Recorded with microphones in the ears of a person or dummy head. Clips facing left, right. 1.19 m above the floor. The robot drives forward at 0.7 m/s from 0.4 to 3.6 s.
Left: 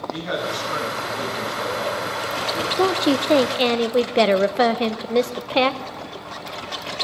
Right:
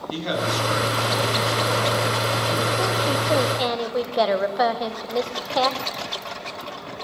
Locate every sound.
0.1 s a man speaking: 50° right (ahead or behind), 9.5 m; by 2.7 s 55° right (ahead or behind), 8.5 m
2.8 s a woman speaking: 60° left (ahead or behind), 0.6 m; by 5.8 s 40° left (ahead or behind), 0.8 m